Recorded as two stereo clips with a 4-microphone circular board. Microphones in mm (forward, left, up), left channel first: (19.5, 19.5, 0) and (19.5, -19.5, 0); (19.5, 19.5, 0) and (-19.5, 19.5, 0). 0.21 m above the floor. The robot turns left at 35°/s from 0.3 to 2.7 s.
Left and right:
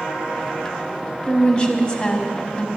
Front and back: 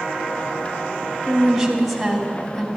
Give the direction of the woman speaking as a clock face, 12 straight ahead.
8 o'clock.